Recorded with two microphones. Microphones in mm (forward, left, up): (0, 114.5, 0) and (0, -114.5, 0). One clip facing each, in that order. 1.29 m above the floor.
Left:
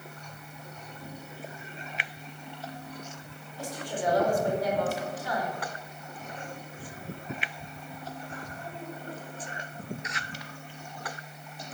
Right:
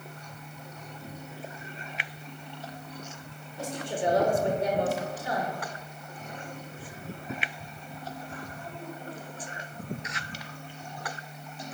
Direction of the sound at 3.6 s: 25° right (ahead or behind).